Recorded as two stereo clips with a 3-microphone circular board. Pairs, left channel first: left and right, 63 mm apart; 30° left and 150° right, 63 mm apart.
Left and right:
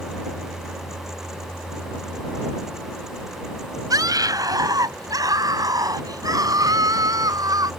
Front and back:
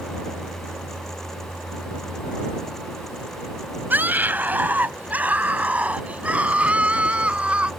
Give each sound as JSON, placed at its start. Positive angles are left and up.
{"t": 3.9, "sound": "a scream", "azimuth_deg": -90}